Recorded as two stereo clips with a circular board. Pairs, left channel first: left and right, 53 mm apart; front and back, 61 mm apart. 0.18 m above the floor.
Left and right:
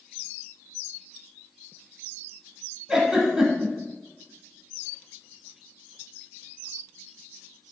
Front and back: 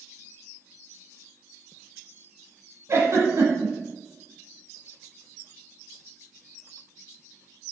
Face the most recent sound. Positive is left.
turn(degrees=-165)